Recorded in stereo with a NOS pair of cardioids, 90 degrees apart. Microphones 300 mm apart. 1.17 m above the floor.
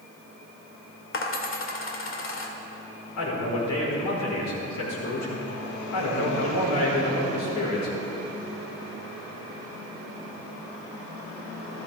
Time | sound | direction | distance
1.1 | a dropped coin | 45° left | 1.9 m
3.2 | a man speaking | 65° left | 5 m